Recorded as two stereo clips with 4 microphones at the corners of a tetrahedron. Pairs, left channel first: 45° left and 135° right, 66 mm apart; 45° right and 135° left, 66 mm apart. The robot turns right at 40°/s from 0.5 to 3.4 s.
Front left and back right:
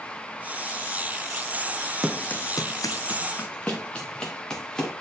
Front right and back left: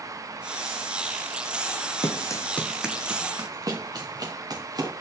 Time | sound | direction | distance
2.0 | running footsteps | 50° right | 1.2 m